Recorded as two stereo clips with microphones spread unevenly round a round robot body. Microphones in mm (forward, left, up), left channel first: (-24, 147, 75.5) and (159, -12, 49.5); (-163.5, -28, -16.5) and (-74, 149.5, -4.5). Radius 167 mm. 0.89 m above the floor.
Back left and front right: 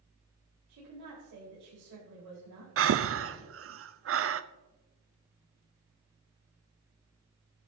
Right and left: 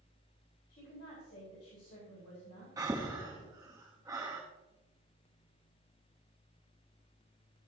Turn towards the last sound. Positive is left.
turn(degrees=-15)